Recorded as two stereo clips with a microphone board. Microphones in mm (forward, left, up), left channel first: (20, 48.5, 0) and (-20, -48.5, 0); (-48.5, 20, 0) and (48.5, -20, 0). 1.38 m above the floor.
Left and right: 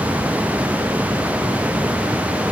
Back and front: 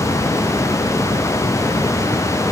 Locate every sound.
Only background noise.